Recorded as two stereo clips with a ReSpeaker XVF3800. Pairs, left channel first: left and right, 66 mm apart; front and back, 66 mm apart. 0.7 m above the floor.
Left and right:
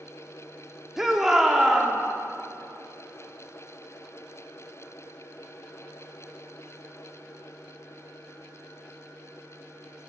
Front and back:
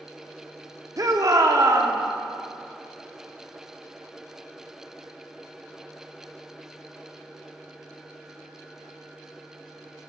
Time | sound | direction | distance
1.0 | a shout | 170° right | 1.1 m